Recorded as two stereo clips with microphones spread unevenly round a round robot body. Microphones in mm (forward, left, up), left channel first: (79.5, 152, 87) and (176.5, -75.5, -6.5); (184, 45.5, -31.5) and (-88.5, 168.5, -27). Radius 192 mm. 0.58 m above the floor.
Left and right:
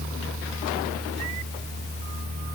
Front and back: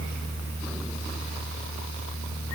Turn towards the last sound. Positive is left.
No sound to turn to.